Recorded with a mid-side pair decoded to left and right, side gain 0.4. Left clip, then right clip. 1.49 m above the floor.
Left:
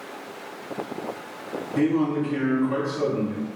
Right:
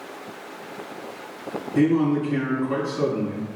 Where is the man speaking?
45° right, 1.8 m.